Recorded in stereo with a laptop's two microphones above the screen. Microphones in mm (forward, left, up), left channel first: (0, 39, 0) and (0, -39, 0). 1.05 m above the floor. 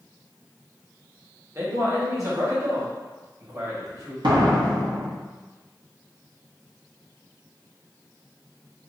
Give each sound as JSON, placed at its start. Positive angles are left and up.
{"t": 1.6, "sound": "a man speaking", "side_deg": -40, "distance_m": 1.4}
{"t": 4.2, "sound": "a door slam", "side_deg": -80, "distance_m": 1.0}